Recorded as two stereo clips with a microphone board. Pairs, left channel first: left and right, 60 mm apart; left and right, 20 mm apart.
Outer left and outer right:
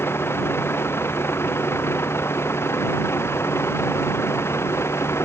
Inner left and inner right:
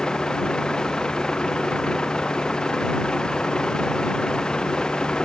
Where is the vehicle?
45° left (ahead or behind); by 5.2 s 50° left (ahead or behind).